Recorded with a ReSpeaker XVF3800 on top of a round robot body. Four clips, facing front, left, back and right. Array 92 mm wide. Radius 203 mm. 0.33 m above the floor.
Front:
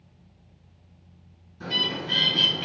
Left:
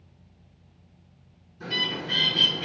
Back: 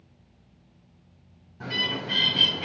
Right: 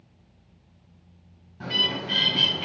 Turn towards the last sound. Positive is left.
turn(degrees=-130)